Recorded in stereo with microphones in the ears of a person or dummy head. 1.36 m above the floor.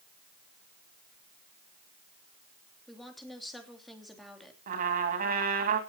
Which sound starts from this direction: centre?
A woman speaking, at 2.9 s.